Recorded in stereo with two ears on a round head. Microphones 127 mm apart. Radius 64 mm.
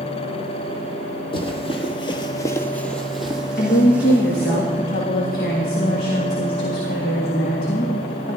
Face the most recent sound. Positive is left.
turn(degrees=75)  # may be behind; listen again after turning